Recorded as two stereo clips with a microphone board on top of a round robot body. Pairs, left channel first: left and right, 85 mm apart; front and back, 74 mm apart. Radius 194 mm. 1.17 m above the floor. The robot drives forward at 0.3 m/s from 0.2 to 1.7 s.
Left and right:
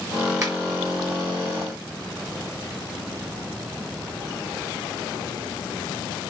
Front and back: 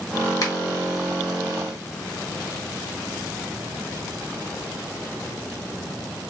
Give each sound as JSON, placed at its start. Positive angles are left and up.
{"t": 0.4, "sound": "a finger snap", "azimuth_deg": -40, "distance_m": 1.6}